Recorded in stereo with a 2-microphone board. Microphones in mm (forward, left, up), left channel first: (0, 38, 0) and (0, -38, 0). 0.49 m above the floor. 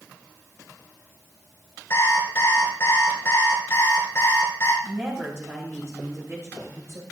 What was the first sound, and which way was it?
An alarm clock, 35° left (ahead or behind).